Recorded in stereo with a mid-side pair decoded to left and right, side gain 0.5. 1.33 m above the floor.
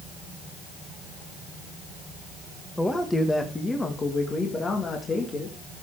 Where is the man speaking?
10° left, 1.7 m; by 5.8 s 40° left, 3 m.